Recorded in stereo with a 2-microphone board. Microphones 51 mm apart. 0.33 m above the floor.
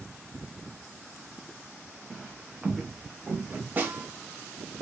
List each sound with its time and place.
2.1 s footsteps: 5° left (ahead or behind), 1.2 m; by 3.7 s 25° right (ahead or behind), 1.8 m
3.8 s a snare drum: 30° right (ahead or behind), 1.7 m